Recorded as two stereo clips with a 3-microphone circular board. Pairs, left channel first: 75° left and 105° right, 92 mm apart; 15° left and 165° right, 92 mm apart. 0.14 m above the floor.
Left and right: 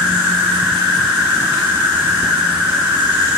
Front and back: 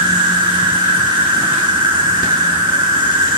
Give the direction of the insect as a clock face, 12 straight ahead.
6 o'clock.